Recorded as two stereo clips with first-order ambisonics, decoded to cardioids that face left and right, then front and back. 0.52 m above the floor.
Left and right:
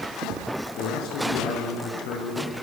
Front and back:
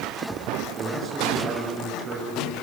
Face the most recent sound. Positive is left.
turn(degrees=110)